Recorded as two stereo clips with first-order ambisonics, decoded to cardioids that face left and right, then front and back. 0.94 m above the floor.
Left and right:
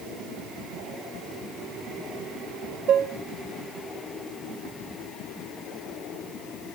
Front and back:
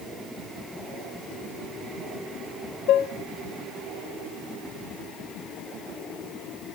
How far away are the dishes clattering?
About 0.6 m.